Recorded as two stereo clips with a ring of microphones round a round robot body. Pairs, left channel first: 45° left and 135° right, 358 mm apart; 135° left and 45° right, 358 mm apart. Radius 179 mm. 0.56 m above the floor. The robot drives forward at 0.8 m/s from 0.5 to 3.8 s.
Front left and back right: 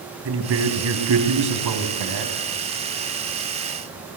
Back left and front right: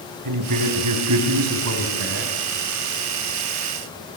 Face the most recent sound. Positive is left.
turn(degrees=-120)